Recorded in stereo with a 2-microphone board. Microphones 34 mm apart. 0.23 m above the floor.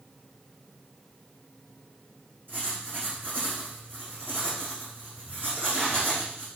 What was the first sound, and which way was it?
Writing, 60° right (ahead or behind).